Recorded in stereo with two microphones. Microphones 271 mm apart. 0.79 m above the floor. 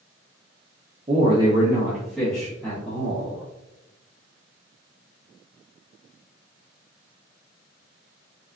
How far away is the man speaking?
About 0.6 m.